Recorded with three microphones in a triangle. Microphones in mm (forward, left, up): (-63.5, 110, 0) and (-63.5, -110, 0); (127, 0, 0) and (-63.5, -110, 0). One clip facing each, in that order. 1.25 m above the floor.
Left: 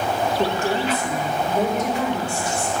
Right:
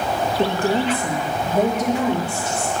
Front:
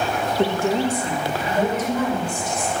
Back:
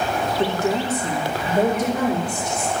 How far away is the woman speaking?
About 1.3 m.